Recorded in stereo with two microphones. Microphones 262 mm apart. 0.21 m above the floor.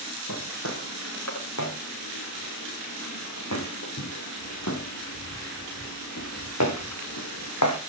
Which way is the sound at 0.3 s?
80° left.